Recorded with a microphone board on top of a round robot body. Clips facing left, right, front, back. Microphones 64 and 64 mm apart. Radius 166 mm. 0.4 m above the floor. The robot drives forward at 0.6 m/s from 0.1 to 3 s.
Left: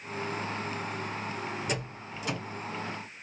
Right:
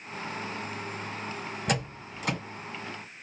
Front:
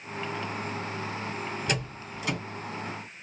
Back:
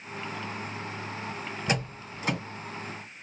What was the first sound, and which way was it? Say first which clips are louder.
A door slam: right 4 dB, back 1 dB; 120° right.